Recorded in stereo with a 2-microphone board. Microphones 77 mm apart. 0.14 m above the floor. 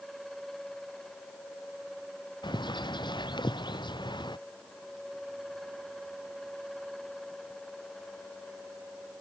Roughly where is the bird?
Left.